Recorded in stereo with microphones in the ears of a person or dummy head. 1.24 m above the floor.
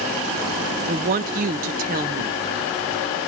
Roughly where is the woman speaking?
Right.